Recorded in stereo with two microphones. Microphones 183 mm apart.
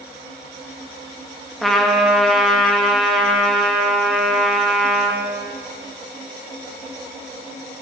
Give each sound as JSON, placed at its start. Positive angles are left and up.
{"t": 1.6, "sound": "a trumpet", "side_deg": 0, "distance_m": 1.3}